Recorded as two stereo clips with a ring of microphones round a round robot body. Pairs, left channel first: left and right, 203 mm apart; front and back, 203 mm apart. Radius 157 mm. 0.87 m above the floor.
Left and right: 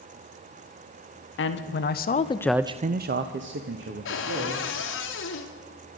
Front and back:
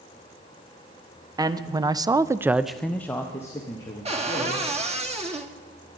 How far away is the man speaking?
About 1.2 m.